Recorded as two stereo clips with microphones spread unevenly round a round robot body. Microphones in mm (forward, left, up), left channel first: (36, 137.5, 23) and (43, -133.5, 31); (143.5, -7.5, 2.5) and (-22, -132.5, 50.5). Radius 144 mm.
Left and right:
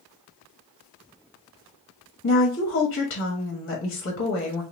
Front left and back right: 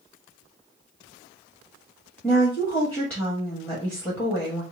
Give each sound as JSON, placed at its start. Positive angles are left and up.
{"t": 2.2, "sound": "a woman speaking", "azimuth_deg": 115, "distance_m": 1.3}